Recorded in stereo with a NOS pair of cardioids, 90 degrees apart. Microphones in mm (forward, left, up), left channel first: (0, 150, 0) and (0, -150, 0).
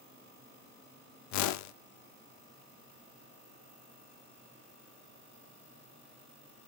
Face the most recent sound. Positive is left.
turn(degrees=65)